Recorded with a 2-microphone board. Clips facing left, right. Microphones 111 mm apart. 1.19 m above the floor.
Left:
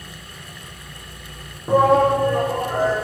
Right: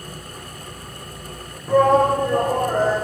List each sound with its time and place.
1.7 s a shout: 25° left (ahead or behind), 0.7 m; by 3.0 s 45° right (ahead or behind), 1.5 m